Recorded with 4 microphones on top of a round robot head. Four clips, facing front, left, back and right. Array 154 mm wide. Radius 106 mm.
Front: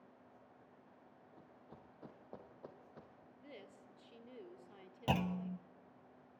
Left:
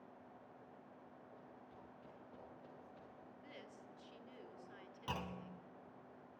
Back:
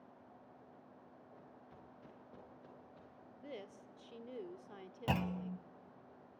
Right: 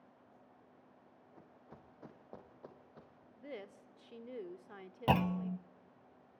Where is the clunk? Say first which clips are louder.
Right 14 dB, front 1 dB; 70° right, 0.6 m.